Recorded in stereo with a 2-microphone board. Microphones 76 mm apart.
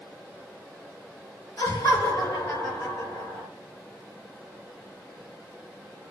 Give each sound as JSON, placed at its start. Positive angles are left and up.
{"t": 1.6, "sound": "laughter", "side_deg": 55, "distance_m": 3.0}